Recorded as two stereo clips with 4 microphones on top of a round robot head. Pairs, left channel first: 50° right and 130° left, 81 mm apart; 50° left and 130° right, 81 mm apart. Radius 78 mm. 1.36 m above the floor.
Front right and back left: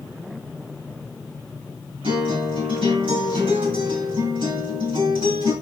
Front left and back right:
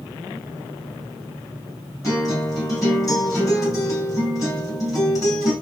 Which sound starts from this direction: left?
A guitar, at 2.0 s.